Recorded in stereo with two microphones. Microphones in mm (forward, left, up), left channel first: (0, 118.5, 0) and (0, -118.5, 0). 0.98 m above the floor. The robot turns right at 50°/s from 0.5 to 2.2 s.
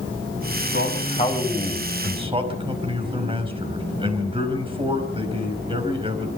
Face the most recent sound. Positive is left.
turn(degrees=-160)